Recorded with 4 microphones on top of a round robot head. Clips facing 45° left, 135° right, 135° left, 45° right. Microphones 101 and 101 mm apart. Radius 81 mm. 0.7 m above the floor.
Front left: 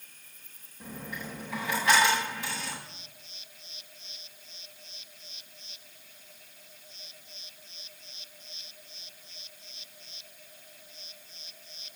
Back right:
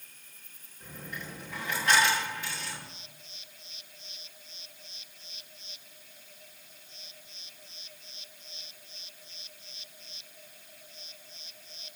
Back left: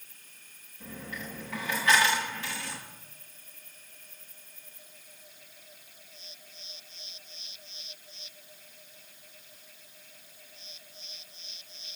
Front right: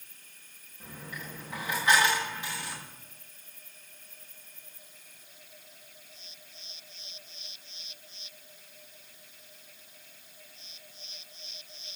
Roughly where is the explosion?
I don't hear an explosion.